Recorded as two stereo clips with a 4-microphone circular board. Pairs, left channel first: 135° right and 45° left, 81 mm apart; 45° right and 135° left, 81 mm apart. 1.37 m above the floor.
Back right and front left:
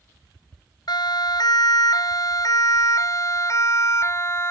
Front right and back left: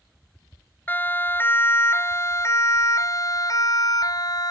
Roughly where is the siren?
Right.